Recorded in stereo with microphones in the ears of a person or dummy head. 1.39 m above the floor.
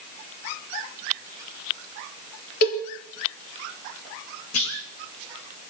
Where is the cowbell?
55° left (ahead or behind), 5.5 m.